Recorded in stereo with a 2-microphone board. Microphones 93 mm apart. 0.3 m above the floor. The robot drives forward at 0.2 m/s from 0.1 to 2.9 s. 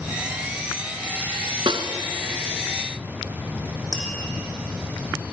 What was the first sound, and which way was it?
A snare drum, 70° right (ahead or behind).